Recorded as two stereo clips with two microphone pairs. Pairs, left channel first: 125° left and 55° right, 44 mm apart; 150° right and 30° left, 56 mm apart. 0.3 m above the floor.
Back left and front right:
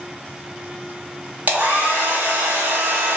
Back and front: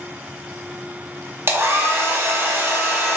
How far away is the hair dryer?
About 0.9 m.